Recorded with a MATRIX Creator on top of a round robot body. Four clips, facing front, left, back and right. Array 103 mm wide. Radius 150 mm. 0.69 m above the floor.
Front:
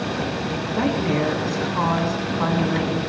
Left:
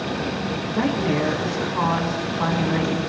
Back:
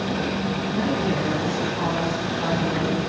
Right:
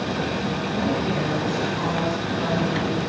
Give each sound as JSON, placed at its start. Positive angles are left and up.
{"t": 0.7, "sound": "a woman speaking", "azimuth_deg": 40, "distance_m": 8.0}